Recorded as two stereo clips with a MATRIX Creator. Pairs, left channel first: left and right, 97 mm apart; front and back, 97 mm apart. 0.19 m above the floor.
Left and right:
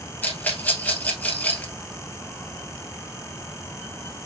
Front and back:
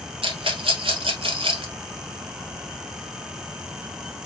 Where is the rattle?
160° left, 1.4 m.